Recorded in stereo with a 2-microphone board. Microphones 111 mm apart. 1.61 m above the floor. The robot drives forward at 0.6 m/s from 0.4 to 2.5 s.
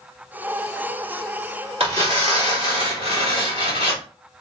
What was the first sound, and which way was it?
Tearing paper, 65° right (ahead or behind).